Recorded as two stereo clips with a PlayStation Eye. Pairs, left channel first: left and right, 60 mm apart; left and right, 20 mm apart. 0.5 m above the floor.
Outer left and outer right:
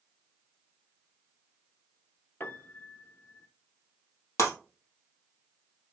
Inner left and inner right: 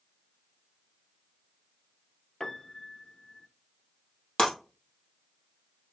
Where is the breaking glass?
45° left (ahead or behind), 2.5 m.